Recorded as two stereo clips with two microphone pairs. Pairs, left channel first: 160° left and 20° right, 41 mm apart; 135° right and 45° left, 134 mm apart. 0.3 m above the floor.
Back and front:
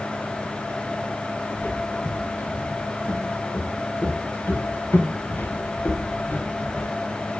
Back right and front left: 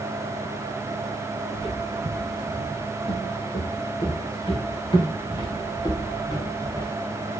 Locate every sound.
1.5 s footsteps: straight behind, 7 m; by 6.9 s 170° left, 4 m